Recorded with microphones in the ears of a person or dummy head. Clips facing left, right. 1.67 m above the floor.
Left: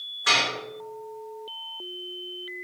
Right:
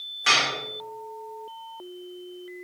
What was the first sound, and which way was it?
Dishes clattering, 40° right (ahead or behind).